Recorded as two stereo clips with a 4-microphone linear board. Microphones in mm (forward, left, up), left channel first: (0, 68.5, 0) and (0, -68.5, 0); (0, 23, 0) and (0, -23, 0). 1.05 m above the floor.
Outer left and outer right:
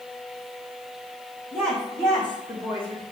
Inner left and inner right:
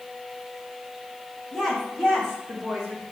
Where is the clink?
No clink in this recording.